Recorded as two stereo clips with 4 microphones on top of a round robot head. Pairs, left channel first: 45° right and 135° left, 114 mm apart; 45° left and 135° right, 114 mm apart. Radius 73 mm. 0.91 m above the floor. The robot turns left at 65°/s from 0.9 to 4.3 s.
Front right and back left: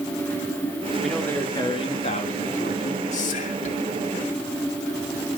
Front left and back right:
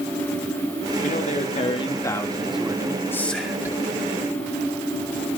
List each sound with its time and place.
1.0 s a man speaking: 50° left, 3 m; by 3.0 s 80° right, 3 m
3.1 s whispering: 25° right, 4.5 m; by 3.8 s 70° right, 4.5 m